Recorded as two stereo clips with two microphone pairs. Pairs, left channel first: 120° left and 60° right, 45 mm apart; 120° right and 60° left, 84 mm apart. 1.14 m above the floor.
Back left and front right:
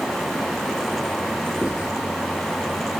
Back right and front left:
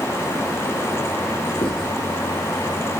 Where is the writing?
125° right, 9 m.